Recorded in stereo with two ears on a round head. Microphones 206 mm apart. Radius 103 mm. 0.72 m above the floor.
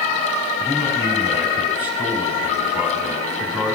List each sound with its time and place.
0.6 s a man speaking: 10° right (ahead or behind), 5.5 m